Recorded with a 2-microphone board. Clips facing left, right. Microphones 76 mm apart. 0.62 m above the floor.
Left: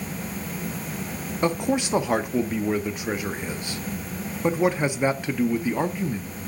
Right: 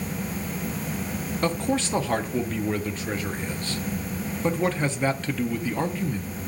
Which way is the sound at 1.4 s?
15° left (ahead or behind).